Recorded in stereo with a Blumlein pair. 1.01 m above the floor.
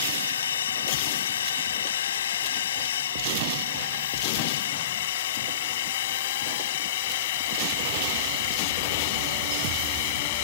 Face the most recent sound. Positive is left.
turn(degrees=50)